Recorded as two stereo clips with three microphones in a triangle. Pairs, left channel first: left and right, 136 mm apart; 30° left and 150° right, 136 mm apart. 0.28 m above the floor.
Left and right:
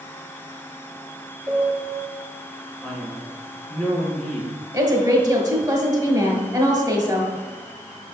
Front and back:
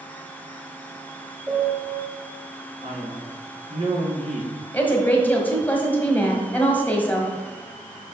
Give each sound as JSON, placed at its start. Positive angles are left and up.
{"t": 1.5, "sound": "a piano", "azimuth_deg": -110, "distance_m": 1.3}
{"t": 2.8, "sound": "a man speaking", "azimuth_deg": 175, "distance_m": 2.5}
{"t": 4.7, "sound": "a woman speaking", "azimuth_deg": -45, "distance_m": 1.4}